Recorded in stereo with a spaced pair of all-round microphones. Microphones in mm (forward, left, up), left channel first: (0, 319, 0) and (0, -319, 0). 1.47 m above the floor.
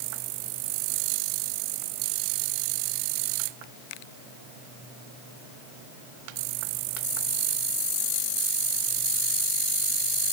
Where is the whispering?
I don't hear whispering.